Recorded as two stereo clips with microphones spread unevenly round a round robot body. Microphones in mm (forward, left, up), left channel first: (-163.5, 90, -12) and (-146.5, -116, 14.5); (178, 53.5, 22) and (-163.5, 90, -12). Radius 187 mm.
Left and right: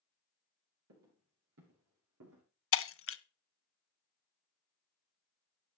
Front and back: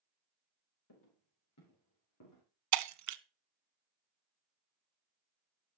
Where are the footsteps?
60° right, 7 m.